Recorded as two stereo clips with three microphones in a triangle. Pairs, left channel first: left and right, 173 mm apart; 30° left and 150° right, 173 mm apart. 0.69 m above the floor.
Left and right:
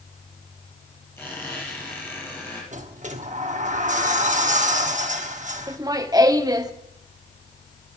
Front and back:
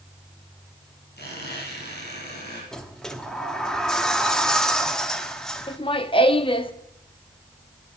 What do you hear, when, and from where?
1.2 s a squeak: 15° left, 6 m
2.7 s a sliding door: 55° right, 1.0 m
5.7 s laughter: 25° right, 0.9 m